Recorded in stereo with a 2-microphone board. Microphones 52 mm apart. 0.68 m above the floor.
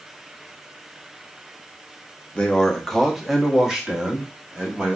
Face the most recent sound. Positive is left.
turn(degrees=-25)  # may be behind; listen again after turning